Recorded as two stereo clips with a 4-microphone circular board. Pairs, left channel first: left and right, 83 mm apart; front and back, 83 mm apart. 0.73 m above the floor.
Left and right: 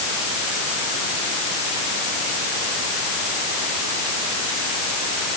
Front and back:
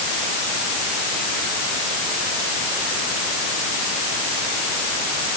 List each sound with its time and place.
Only background noise.